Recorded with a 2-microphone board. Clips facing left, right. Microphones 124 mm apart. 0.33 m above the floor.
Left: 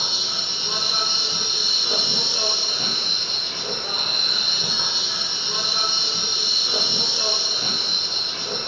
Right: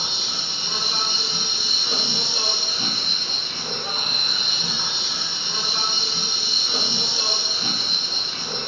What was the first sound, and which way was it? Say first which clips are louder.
An insect: left 1 dB; 20° left (ahead or behind).